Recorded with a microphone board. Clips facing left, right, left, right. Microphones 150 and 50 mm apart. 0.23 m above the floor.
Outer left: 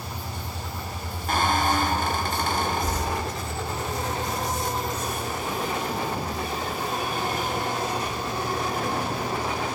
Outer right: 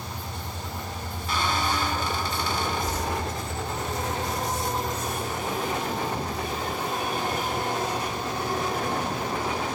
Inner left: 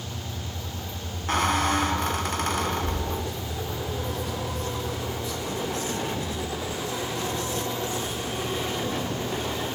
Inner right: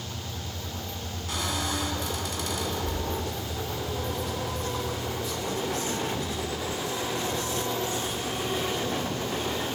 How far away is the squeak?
About 1.7 m.